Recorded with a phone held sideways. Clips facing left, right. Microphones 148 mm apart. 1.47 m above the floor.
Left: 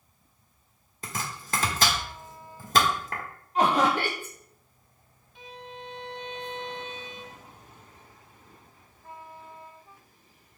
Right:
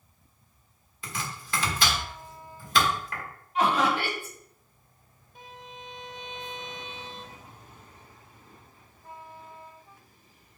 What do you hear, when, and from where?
1.0 s chopping: 45° left (ahead or behind), 1.3 m
3.5 s laughter: 40° left (ahead or behind), 1.3 m
5.3 s a violin: 45° right (ahead or behind), 0.9 m